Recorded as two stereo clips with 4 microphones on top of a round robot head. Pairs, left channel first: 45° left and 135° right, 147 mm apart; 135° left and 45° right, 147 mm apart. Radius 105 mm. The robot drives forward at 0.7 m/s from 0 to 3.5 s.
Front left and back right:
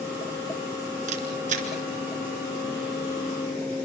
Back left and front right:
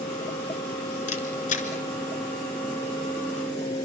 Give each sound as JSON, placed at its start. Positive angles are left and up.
{"t": 1.1, "sound": "a camera shutter", "azimuth_deg": 180, "distance_m": 3.0}